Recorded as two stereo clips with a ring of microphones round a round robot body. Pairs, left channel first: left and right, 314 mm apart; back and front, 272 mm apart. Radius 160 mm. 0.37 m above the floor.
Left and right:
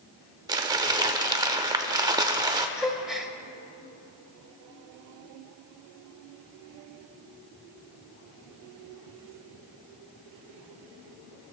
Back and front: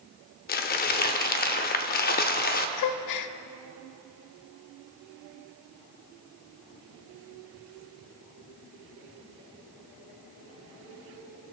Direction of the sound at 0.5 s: 160° right.